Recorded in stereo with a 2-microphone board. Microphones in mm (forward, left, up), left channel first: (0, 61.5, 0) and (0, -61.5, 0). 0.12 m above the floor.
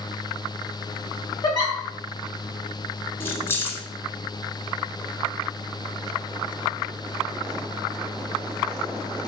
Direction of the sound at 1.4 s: 35° left (ahead or behind).